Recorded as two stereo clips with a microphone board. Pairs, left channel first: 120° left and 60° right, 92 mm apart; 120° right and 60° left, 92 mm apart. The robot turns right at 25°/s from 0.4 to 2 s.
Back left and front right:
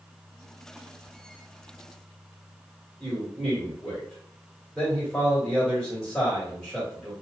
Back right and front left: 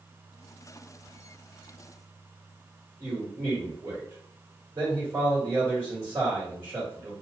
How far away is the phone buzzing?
I don't hear a phone buzzing.